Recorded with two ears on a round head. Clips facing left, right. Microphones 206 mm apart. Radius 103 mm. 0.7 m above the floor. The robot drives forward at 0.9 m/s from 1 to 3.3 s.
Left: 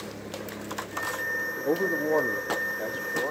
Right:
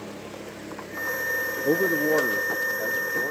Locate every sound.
1.6 s a man speaking: 20° right (ahead or behind), 0.6 m; by 3.3 s 10° right (ahead or behind), 1.7 m